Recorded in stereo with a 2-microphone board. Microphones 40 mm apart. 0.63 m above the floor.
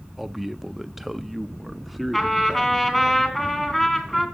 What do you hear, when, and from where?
0.2 s a man speaking: 5° right (ahead or behind), 0.7 m; by 3.1 s centre (ahead or behind), 1.3 m
2.1 s a trumpet: 10° left (ahead or behind), 3 m